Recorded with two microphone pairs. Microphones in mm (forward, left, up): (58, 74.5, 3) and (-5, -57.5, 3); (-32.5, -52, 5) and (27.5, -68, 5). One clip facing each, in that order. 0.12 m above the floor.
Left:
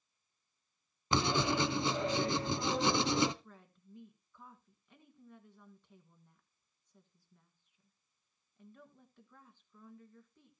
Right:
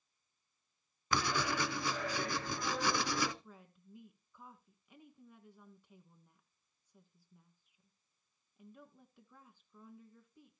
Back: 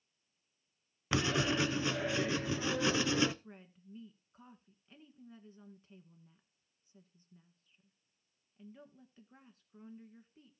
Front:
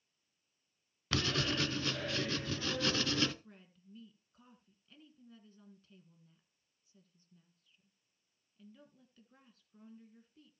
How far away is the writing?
About 0.5 m.